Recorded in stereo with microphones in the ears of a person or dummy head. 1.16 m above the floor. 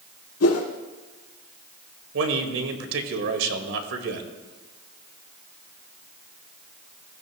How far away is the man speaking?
About 1.9 m.